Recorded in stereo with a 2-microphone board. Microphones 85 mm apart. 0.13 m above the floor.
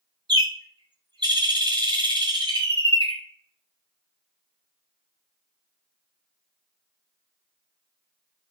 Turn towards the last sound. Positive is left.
turn(degrees=-60)  # may be behind; listen again after turning